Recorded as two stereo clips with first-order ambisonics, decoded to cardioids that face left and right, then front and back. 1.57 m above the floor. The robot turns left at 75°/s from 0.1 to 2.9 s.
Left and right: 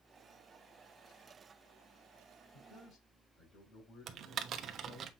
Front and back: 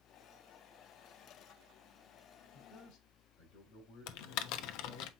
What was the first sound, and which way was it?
A man speaking, 60° left.